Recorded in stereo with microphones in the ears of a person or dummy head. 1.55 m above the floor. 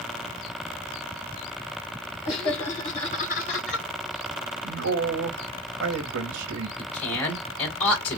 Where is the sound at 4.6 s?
80° right, 1.4 m.